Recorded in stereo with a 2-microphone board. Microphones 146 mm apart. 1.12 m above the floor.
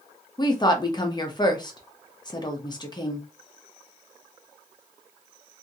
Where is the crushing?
No crushing in this recording.